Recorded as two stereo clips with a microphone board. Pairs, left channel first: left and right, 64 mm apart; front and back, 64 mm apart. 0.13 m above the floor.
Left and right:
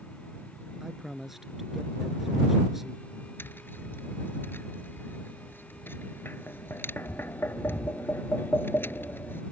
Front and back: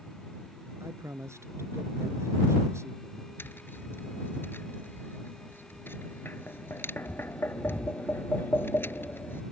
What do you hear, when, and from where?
0.8 s a man speaking: 175° right
3.4 s tapping: 45° left